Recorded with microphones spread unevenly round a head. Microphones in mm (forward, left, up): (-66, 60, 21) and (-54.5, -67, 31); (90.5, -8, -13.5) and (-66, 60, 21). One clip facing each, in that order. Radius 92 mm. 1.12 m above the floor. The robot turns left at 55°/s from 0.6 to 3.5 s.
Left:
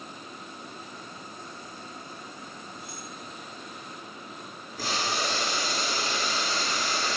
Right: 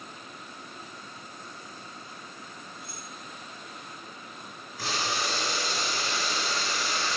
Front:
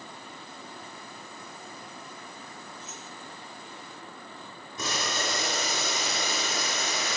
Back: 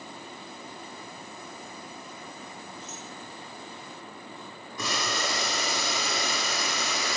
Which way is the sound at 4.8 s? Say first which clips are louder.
Left 1 dB, back 1 dB; 45° left.